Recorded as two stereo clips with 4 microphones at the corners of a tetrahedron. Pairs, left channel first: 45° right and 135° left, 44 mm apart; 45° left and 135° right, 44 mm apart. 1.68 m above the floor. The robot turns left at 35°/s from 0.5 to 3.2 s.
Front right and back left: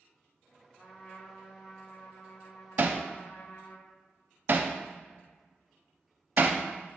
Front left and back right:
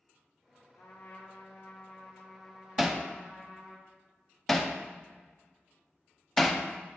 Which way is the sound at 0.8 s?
20° left.